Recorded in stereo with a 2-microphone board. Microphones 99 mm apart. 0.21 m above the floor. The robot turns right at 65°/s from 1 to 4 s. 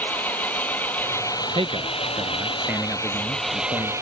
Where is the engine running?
20° left; by 4.0 s 145° right.